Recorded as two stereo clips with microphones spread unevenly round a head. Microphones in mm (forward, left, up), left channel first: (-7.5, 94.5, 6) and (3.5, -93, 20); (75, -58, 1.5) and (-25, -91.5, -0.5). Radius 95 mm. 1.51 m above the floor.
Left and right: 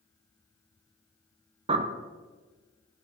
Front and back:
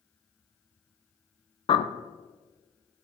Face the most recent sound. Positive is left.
turn(degrees=-25)